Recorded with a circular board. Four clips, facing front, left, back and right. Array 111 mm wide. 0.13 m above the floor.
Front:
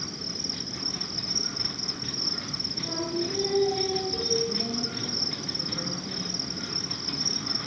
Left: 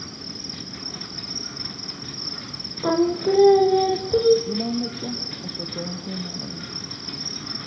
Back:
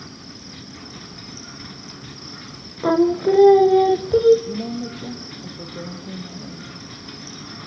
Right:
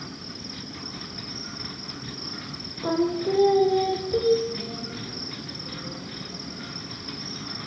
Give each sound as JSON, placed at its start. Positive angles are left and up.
{"t": 0.0, "sound": "an insect", "azimuth_deg": 20, "distance_m": 4.5}
{"t": 2.8, "sound": "singing", "azimuth_deg": 160, "distance_m": 1.5}
{"t": 4.5, "sound": "a woman speaking", "azimuth_deg": 120, "distance_m": 4.0}